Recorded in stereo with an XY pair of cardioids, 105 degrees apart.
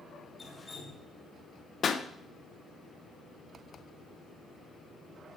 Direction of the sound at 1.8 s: 45° left.